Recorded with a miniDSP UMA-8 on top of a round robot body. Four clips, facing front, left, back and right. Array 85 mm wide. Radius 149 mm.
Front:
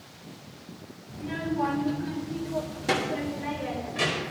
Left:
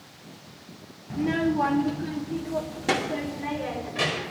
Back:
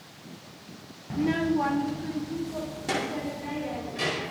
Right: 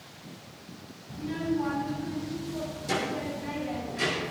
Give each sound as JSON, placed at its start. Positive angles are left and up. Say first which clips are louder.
{"t": 1.1, "sound": "a child speaking", "louder": "left 6 dB, back 6 dB", "azimuth_deg": 145, "distance_m": 0.5}